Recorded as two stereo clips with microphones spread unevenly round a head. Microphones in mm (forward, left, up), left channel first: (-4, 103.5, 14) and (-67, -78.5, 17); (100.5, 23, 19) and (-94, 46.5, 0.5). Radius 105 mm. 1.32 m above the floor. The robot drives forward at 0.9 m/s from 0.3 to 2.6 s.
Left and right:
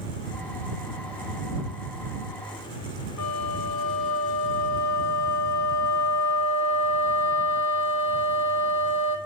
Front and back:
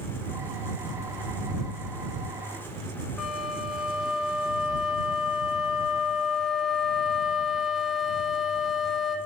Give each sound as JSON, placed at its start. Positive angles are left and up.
{"t": 3.2, "sound": "a flute", "azimuth_deg": 85, "distance_m": 1.1}